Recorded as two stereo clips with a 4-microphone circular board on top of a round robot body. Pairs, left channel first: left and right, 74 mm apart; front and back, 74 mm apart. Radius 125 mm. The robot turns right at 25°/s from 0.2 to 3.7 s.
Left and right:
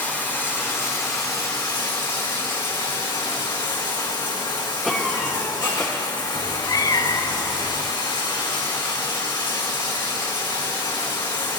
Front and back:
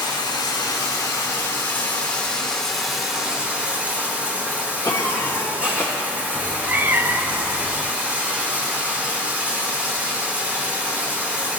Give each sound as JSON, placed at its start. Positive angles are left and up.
{"t": 0.0, "sound": "running water", "azimuth_deg": 25, "distance_m": 2.5}
{"t": 4.8, "sound": "a cough", "azimuth_deg": -5, "distance_m": 1.1}
{"t": 6.3, "sound": "a cat meowing", "azimuth_deg": 120, "distance_m": 0.5}